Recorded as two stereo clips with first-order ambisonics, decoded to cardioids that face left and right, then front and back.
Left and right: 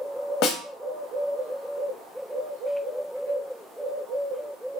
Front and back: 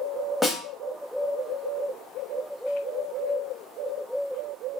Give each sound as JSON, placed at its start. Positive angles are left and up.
{"t": 0.4, "sound": "a snare drum", "azimuth_deg": 90, "distance_m": 0.6}